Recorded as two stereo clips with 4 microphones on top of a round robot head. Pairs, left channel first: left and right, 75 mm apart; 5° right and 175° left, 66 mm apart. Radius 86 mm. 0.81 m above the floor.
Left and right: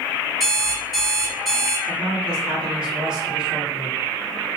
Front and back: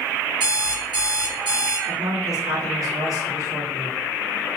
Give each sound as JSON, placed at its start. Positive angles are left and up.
{"t": 0.4, "sound": "an alarm clock", "azimuth_deg": 180, "distance_m": 1.9}
{"t": 1.9, "sound": "a man speaking", "azimuth_deg": -165, "distance_m": 1.6}